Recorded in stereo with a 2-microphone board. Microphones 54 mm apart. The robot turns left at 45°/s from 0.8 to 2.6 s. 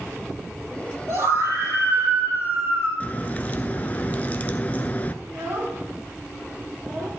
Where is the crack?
30° left (ahead or behind), 0.6 m.